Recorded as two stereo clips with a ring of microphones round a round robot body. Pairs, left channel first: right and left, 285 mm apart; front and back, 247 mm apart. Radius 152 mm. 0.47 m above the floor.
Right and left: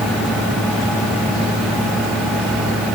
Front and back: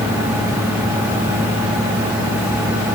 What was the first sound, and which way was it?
Only background noise.